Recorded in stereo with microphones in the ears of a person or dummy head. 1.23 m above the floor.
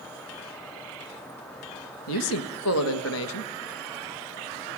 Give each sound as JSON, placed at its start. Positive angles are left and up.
{"t": 2.1, "sound": "a man speaking", "side_deg": 85, "distance_m": 1.2}